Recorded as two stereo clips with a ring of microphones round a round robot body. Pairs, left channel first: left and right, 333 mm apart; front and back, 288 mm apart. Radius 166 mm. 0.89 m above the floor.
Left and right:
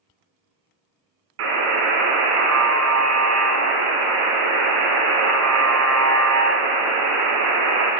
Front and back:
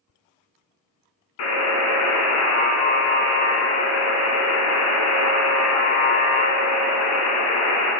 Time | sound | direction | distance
1.4 | a buzzer | 45° right | 1.7 m